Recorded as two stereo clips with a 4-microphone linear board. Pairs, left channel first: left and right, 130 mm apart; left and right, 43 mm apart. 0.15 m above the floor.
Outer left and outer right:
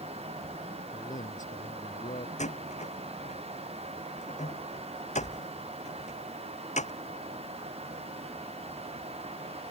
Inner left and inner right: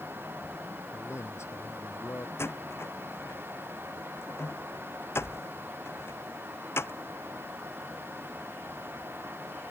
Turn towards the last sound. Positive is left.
turn(degrees=60)  # may be behind; listen again after turning